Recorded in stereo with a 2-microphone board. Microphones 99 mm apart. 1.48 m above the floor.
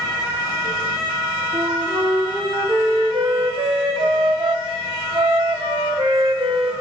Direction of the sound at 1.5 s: 55° right (ahead or behind).